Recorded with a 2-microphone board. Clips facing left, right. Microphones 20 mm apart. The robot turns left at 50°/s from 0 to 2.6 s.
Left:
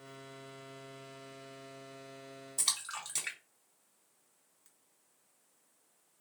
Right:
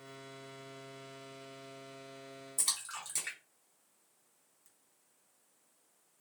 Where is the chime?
I don't hear a chime.